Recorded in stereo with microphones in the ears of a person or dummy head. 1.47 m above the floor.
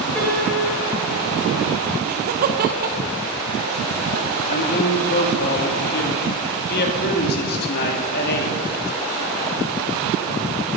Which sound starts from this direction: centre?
A piano, at 0.1 s.